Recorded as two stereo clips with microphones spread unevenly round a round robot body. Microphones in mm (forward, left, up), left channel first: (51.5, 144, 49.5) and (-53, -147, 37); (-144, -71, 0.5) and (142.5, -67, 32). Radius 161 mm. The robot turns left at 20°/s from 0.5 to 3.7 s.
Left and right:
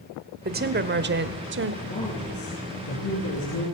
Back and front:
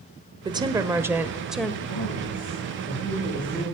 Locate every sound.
0.5 s a woman speaking: 75° right, 1.2 m; by 1.7 s 100° right, 1.2 m
1.8 s a woman speaking: 125° left, 6.5 m; by 3.7 s 90° left, 6.5 m